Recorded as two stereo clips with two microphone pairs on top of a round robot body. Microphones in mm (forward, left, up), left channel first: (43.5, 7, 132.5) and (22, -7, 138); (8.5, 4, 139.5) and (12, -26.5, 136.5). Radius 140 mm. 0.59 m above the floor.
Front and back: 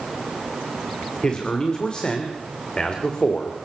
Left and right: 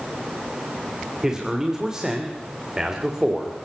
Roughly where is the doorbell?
I don't hear a doorbell.